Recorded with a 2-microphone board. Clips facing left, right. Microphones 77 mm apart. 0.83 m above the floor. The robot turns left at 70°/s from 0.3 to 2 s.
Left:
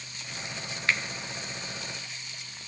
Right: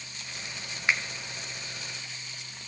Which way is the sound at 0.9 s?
20° right (ahead or behind).